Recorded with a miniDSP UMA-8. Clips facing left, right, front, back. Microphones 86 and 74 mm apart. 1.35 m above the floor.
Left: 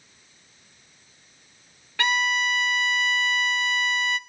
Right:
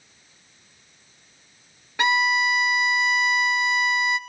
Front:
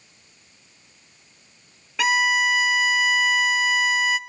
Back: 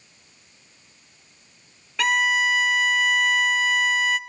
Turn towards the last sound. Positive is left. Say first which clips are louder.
# right 3 dB, front 1 dB
turn(degrees=-70)